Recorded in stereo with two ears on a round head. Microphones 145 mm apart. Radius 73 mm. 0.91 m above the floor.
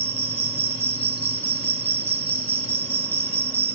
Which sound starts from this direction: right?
An insect, at 0.0 s.